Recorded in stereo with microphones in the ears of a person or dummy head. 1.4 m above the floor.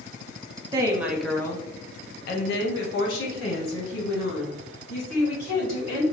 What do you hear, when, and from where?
0.7 s a woman speaking: 20° right (ahead or behind), 0.6 m; by 6.0 s 80° left, 2.5 m